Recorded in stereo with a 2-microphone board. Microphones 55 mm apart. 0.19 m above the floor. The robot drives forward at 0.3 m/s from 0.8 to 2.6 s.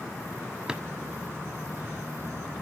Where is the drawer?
15° right (ahead or behind), 0.6 m.